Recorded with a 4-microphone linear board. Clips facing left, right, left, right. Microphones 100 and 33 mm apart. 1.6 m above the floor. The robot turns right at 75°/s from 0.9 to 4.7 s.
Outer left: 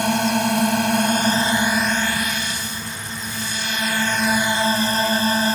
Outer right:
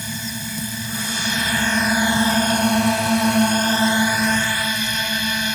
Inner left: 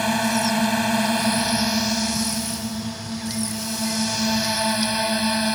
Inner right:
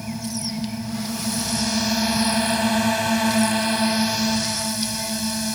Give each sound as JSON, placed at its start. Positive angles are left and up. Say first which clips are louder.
{"t": 0.0, "sound": "a drone", "louder": "outer left 12 dB, inner left 9 dB", "azimuth_deg": 110}